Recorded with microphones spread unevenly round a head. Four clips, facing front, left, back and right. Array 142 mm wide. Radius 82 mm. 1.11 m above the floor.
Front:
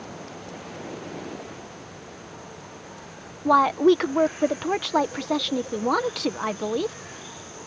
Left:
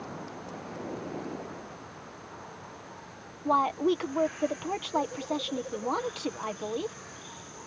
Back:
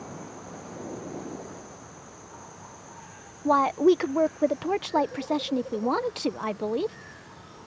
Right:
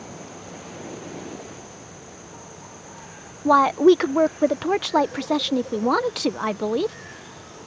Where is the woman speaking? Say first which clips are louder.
Right 10 dB, front 3 dB; 50° right.